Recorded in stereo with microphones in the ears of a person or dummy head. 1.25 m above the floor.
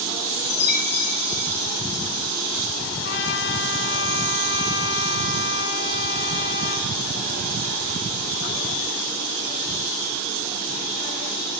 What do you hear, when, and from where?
0.5 s a chime: 60° left (ahead or behind), 1.1 m
3.0 s a trumpet: 70° left (ahead or behind), 1.2 m